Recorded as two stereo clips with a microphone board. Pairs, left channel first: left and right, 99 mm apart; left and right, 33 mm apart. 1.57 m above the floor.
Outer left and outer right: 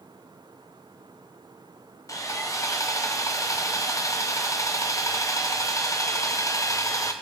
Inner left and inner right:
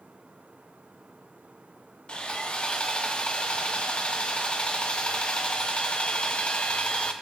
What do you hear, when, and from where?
2.1 s sawing: 30° left (ahead or behind), 0.8 m